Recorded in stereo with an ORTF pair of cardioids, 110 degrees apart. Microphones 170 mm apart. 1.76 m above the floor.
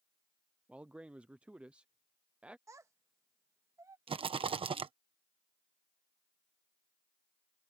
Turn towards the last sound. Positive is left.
turn(degrees=-30)